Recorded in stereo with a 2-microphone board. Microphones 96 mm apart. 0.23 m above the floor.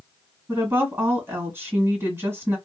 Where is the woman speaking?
30° right (ahead or behind), 1.6 m.